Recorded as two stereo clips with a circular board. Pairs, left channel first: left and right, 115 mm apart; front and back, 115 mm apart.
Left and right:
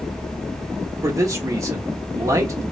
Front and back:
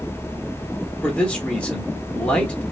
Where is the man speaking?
70° right, 1.1 m.